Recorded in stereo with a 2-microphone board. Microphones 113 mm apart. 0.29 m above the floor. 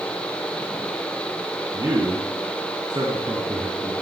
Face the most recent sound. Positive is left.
turn(degrees=-40)  # may be behind; listen again after turning